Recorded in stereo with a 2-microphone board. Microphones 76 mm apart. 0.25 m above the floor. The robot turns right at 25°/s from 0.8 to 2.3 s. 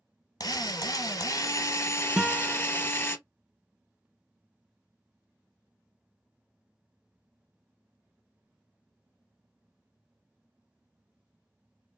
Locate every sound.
0.4 s a drill: 105° left, 0.6 m; by 3.2 s 140° left, 0.6 m
2.2 s a guitar: 5° right (ahead or behind), 0.5 m; by 2.7 s 10° right (ahead or behind), 0.5 m